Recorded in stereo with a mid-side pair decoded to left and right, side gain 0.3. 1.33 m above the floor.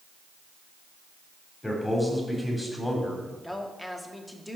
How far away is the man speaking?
About 4.5 m.